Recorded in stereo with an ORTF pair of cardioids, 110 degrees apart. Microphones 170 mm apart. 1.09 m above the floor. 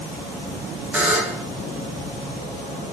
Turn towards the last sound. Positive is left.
turn(degrees=-10)